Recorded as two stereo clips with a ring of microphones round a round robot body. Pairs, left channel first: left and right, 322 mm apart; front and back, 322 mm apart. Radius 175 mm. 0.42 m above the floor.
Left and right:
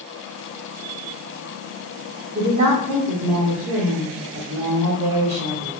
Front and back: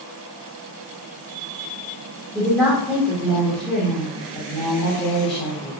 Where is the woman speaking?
85° right, 1.1 m.